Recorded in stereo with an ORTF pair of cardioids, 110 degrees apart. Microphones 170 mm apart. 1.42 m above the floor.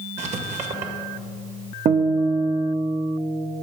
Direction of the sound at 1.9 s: 45° right.